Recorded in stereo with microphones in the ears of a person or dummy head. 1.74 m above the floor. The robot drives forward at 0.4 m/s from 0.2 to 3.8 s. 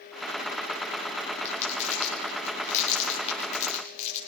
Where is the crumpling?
40° left (ahead or behind), 6.5 m; by 4.2 s 45° left (ahead or behind), 5.5 m.